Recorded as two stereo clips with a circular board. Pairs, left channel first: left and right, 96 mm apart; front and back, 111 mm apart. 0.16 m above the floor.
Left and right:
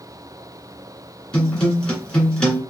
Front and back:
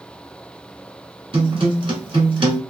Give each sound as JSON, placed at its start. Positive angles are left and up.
{"t": 1.3, "sound": "a guitar", "azimuth_deg": 170, "distance_m": 1.5}